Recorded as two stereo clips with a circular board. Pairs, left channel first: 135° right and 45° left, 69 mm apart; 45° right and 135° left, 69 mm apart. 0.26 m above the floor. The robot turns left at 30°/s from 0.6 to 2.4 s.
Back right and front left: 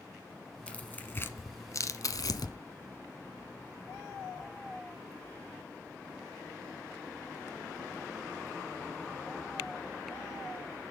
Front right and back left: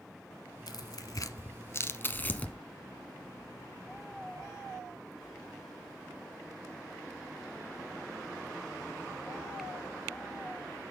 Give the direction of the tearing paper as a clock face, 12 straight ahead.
2 o'clock.